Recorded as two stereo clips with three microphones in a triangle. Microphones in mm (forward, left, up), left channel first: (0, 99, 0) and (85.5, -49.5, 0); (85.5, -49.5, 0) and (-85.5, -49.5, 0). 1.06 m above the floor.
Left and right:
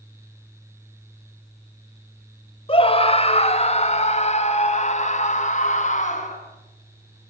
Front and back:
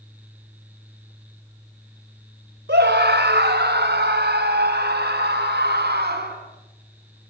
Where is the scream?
175° left, 3.5 m; by 6.3 s 165° left, 8 m.